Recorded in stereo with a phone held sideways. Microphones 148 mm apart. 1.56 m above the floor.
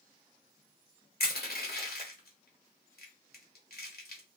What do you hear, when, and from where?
1.2 s crushing: 80° left, 1.0 m